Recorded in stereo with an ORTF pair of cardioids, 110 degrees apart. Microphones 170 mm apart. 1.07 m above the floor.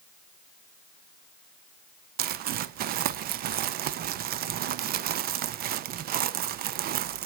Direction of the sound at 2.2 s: 60° right.